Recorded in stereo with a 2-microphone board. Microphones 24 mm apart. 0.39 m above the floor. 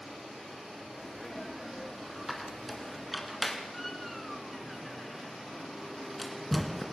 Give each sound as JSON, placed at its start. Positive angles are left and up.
{"t": 0.9, "sound": "a sneeze", "side_deg": 5, "distance_m": 6.0}
{"t": 2.3, "sound": "a squeak", "side_deg": 5, "distance_m": 2.5}